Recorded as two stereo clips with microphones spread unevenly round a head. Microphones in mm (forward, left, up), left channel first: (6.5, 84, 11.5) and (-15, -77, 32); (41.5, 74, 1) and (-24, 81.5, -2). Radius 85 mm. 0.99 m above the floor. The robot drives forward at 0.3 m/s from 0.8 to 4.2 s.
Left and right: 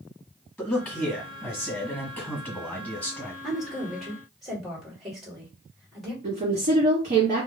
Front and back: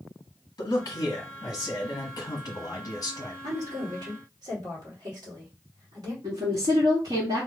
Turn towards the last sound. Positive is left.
turn(degrees=-145)